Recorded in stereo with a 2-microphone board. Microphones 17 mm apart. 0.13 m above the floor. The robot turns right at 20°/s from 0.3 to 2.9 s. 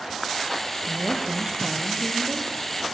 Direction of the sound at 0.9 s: 95° right.